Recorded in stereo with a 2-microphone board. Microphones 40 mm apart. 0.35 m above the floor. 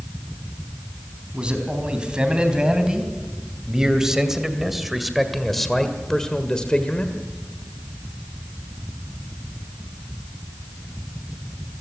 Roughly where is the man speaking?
Right.